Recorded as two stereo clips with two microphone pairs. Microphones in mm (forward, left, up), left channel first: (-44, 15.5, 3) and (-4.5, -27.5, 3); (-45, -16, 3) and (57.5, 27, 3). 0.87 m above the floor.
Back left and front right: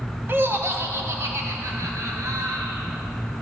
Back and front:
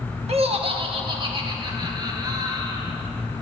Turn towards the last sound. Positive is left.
turn(degrees=-30)